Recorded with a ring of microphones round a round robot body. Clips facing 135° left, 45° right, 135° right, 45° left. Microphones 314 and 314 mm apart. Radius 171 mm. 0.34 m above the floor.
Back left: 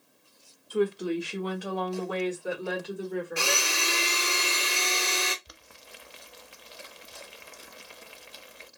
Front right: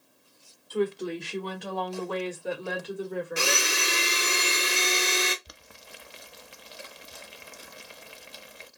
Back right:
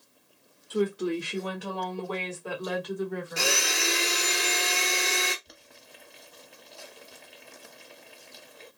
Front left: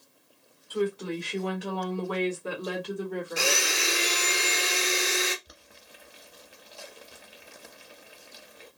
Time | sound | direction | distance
0.7 | a woman speaking | 155° right | 1.3 m
3.4 | a blender | 45° right | 0.9 m
5.5 | boiling | 40° right | 0.6 m